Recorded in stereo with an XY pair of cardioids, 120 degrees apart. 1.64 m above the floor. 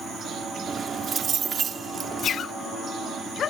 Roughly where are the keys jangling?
Ahead right.